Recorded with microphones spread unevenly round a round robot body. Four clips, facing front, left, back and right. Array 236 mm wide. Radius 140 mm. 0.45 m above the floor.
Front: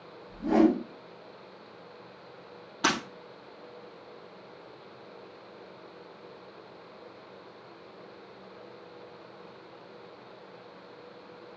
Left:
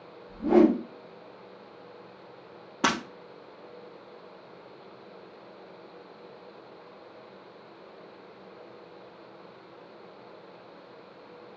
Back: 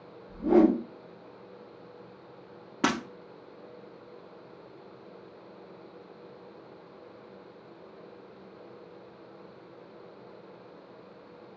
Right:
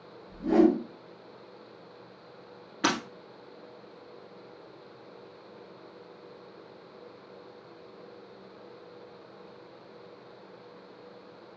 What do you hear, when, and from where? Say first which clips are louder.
0.3 s a whoosh: left 2 dB, back 2 dB; straight behind, 2.0 m
2.8 s breaking glass: left 1 dB, back 1 dB; 165° left, 1.9 m